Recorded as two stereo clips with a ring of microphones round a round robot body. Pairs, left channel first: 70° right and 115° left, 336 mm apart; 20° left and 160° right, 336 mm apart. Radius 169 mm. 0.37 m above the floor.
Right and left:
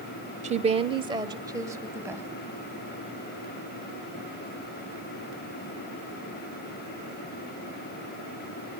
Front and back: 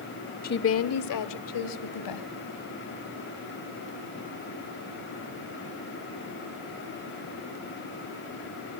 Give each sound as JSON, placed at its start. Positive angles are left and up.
{"t": 0.4, "sound": "a woman speaking", "azimuth_deg": 60, "distance_m": 0.9}